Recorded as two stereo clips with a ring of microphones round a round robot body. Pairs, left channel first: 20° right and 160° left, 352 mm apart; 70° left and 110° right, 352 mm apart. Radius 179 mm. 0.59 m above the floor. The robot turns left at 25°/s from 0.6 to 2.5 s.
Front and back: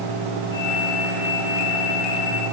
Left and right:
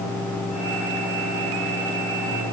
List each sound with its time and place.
Only background noise.